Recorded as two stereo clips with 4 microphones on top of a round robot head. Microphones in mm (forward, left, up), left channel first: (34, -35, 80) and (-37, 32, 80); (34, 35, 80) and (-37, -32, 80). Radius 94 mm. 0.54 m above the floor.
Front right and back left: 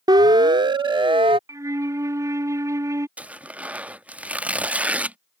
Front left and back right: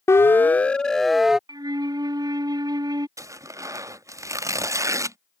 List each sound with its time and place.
0.1 s a siren: 100° left; by 1.4 s 140° left
1.5 s a flute: 175° right
3.2 s tearing paper: 160° right